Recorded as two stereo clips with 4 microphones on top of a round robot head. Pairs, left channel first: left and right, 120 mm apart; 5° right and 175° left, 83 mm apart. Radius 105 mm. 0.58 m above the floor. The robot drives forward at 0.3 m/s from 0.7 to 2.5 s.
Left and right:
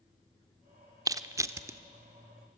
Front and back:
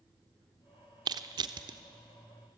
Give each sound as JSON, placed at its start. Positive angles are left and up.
{"t": 1.1, "sound": "crushing", "azimuth_deg": -150, "distance_m": 0.7}